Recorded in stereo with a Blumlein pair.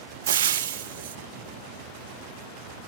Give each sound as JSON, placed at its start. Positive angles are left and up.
{"t": 0.3, "sound": "frying", "azimuth_deg": -65, "distance_m": 0.7}